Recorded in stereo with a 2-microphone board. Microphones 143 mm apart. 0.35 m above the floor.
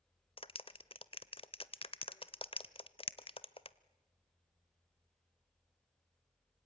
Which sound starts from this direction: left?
A clap, at 0.4 s.